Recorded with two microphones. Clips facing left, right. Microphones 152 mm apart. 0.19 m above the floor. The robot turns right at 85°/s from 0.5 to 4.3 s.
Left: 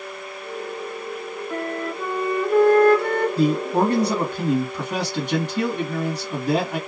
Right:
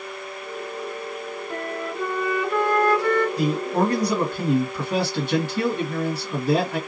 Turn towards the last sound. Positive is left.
turn(degrees=145)